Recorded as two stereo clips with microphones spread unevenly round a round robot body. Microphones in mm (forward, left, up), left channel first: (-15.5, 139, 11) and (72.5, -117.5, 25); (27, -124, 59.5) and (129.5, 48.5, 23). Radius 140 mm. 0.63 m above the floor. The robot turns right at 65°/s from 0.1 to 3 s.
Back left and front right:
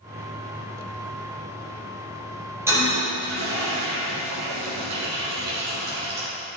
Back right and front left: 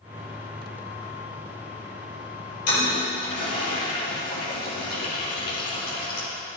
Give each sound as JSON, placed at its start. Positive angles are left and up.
{"t": 2.7, "sound": "a toilet flushing", "azimuth_deg": -155, "distance_m": 5.0}